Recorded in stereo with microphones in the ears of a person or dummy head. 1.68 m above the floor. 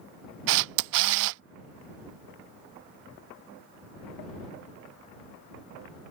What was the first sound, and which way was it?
A camera shutter, 65° right (ahead or behind).